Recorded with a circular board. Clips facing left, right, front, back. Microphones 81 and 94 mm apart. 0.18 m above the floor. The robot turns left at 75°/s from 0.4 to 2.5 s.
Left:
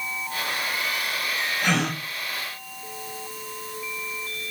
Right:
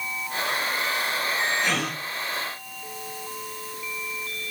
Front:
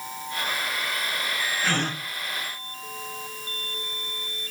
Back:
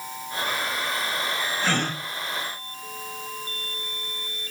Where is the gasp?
125° left, 7 m; by 2.0 s 95° left, 7 m.